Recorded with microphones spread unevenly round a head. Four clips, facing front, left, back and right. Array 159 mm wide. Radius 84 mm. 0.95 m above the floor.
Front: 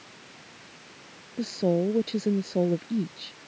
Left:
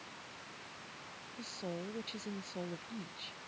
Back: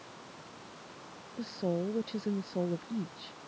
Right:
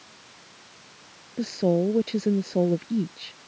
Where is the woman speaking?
55° right.